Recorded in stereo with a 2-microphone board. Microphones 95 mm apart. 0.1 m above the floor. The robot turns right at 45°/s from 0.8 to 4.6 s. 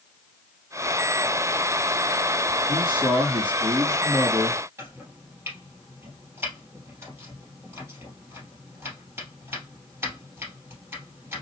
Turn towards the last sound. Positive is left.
turn(degrees=-25)  # may be behind; listen again after turning